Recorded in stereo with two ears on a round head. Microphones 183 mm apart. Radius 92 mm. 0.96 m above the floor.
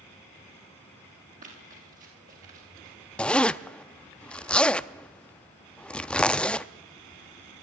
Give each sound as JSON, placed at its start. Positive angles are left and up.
{"t": 1.4, "sound": "running footsteps", "side_deg": -40, "distance_m": 8.5}
{"t": 3.2, "sound": "a zipper", "side_deg": 5, "distance_m": 0.5}